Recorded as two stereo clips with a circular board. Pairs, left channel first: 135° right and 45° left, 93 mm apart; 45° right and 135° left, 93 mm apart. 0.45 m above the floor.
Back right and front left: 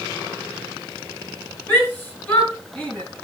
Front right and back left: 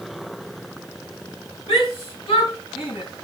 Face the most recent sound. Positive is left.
turn(degrees=-65)